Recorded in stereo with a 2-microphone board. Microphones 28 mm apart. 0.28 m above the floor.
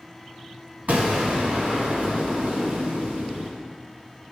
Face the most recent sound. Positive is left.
turn(degrees=-70)  # may be behind; listen again after turning